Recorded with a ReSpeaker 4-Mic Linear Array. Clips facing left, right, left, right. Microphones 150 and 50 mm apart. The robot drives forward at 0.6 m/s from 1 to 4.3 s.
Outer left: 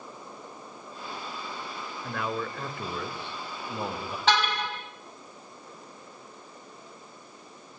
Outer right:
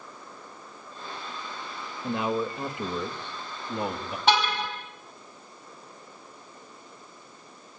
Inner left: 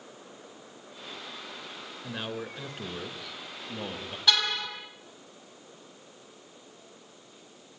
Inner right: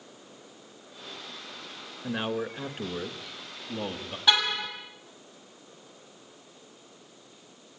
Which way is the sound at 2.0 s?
20° right (ahead or behind).